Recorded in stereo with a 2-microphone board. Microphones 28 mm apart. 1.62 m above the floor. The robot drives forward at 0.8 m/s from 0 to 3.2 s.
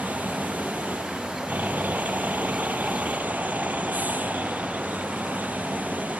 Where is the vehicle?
85° right; by 6.2 s 90° right.